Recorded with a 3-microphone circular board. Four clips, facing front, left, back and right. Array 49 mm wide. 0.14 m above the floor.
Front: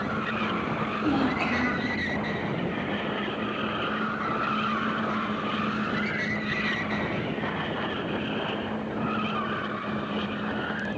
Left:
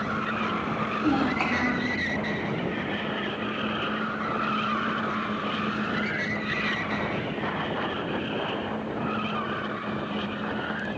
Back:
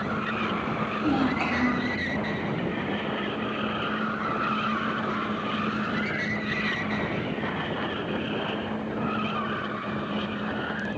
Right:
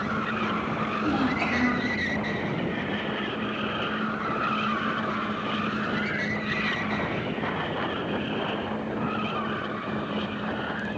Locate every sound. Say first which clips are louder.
1.0 s a child speaking: left 2 dB, back 1 dB; 100° left, 5 m